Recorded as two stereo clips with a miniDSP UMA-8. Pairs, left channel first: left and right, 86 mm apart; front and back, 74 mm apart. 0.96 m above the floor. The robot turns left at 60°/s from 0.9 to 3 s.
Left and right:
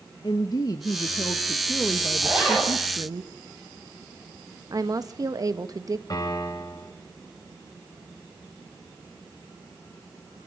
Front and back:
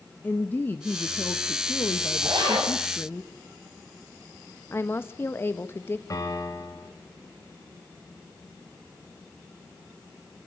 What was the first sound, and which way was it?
A woman speaking, 60° left.